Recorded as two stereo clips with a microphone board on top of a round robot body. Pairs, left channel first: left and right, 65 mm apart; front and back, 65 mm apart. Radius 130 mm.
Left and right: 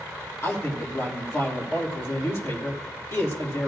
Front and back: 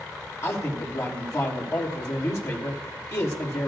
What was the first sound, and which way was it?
A man speaking, 40° left.